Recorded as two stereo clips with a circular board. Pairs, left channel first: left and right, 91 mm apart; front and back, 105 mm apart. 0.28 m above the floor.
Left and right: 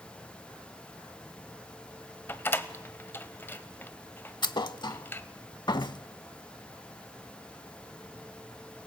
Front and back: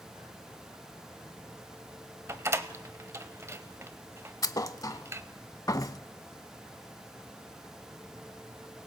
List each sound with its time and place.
2.3 s a door slam: 140° left, 0.8 m
4.4 s a thud: 55° left, 0.5 m